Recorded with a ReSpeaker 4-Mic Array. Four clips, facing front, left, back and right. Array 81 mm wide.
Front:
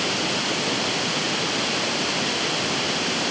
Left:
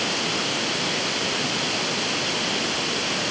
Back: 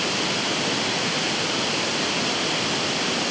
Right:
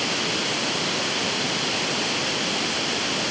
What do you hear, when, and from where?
Only background noise.